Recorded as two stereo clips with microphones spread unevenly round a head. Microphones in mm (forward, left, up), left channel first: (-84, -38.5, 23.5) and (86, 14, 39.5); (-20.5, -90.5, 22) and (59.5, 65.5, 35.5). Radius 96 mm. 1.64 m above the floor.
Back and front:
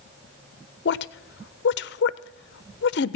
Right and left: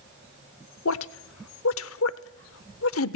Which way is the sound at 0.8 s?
135° right.